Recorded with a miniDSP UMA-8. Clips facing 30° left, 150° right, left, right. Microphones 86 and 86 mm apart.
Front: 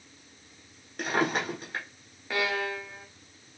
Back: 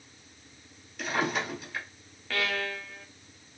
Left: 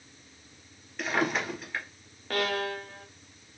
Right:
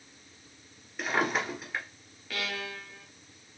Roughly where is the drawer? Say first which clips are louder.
Front 2 dB, even; ahead.